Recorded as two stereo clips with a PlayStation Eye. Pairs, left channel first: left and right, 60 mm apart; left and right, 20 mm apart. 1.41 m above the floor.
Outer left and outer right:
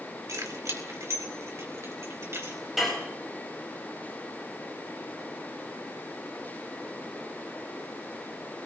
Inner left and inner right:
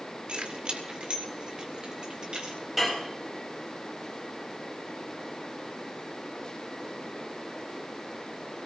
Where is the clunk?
No clunk in this recording.